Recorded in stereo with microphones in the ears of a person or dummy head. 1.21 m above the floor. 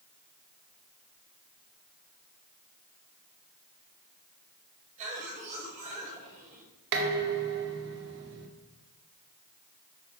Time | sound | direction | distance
5.0 | a cough | 40° right (ahead or behind) | 6 m
6.9 | dishes clattering | 60° right (ahead or behind) | 2 m